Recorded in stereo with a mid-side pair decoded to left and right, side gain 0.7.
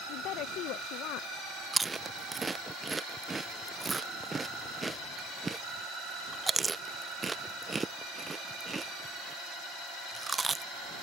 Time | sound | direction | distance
0.1 | a woman speaking | 60° left | ?
1.7 | chewing | 15° right | ?